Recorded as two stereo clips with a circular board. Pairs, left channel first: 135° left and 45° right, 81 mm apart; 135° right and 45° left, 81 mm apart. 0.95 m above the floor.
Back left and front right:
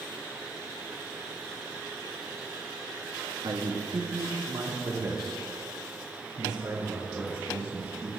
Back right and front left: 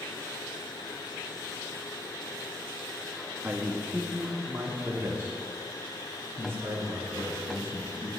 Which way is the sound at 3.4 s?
25° right.